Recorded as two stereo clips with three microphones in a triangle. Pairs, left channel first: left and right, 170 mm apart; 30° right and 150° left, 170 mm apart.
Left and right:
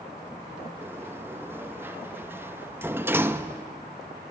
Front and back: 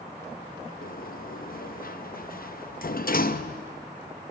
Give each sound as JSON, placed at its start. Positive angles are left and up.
{"t": 0.8, "sound": "a sliding door", "azimuth_deg": -15, "distance_m": 0.6}